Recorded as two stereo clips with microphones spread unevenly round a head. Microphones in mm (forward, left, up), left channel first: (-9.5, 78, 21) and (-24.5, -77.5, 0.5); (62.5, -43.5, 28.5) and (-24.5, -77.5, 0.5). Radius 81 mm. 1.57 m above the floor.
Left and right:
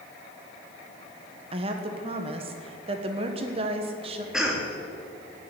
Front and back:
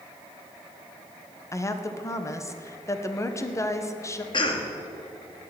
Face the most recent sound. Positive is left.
turn(degrees=-10)